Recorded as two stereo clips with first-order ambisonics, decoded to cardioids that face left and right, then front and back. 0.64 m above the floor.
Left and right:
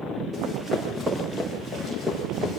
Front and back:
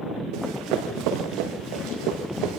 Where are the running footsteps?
170° right, 8.5 m; by 2.6 s 165° right, 6.5 m.